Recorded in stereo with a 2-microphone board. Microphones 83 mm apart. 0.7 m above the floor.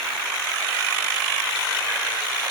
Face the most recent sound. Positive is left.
No sound to turn to.